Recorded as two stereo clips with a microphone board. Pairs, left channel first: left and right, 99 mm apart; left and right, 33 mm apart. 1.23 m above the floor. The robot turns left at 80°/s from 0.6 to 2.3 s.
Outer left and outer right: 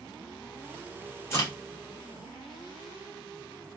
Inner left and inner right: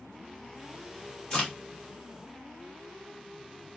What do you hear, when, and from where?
1.3 s a crack: 30° left (ahead or behind), 1.6 m; by 1.5 s 45° left (ahead or behind), 1.6 m